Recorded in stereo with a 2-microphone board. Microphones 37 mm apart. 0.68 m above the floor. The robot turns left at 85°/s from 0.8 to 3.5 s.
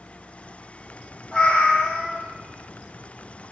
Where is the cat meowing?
160° left, 1.1 m; by 2.3 s 75° left, 1.1 m.